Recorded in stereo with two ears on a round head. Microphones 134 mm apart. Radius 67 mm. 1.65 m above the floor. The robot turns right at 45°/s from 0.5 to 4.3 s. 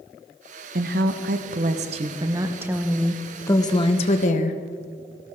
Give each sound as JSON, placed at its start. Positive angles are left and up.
{"t": 0.8, "sound": "a woman speaking", "azimuth_deg": -100, "distance_m": 1.0}